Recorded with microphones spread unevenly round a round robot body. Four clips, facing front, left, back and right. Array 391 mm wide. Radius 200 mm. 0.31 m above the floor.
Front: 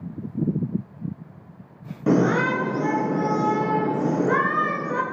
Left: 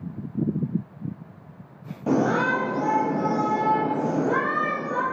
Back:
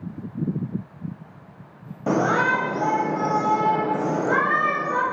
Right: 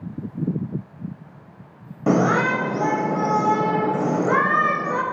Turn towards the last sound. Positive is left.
turn(degrees=-55)